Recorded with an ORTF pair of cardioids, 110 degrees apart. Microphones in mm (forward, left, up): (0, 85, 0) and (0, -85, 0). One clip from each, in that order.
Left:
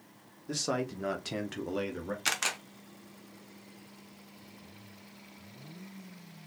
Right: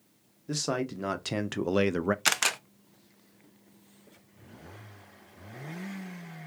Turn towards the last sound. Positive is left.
turn(degrees=-25)